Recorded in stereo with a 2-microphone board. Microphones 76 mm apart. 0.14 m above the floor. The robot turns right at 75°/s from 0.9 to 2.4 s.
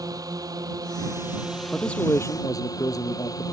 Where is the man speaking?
Straight ahead; by 3.4 s 55° left.